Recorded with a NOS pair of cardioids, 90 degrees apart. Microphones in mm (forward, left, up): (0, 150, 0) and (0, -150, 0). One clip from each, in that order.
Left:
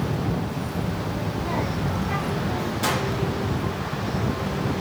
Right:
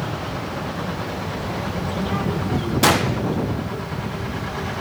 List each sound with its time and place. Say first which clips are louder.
0.8 s a child speaking: right 2 dB; 30° left, 1.6 m; by 2.7 s 15° right, 1.4 m
2.8 s a gunshot: right 8 dB; 45° right, 0.6 m